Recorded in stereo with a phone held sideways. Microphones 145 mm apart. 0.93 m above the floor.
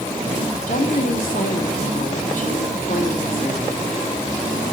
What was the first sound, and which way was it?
A woman speaking, 70° left (ahead or behind).